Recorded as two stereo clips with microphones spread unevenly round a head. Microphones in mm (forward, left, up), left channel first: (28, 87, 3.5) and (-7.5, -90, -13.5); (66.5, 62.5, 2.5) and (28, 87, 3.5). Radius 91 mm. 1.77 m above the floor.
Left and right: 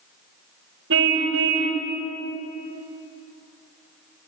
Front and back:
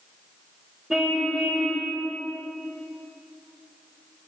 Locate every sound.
0.9 s a car horn: 125° right, 4 m